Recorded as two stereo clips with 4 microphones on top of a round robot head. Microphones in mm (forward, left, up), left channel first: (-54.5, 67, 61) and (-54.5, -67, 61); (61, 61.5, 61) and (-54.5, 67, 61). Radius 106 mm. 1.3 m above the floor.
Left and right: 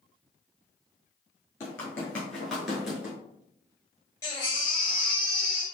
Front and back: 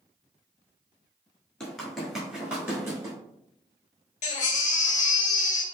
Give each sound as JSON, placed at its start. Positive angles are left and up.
{"t": 1.6, "sound": "running footsteps", "azimuth_deg": 75, "distance_m": 1.3}
{"t": 4.2, "sound": "a baby crying", "azimuth_deg": 15, "distance_m": 0.7}